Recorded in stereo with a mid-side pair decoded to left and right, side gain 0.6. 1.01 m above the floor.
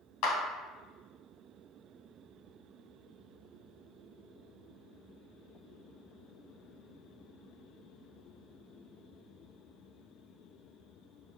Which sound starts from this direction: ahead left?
A clap, at 0.2 s.